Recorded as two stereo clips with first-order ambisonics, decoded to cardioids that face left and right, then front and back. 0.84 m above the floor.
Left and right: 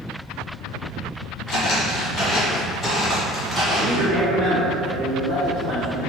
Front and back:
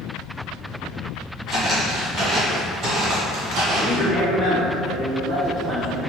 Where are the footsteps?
95° left, 1.1 m; by 4.1 s 170° right, 1.3 m.